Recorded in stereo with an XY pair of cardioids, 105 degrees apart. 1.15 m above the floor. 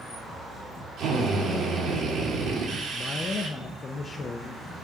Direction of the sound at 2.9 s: 40° left.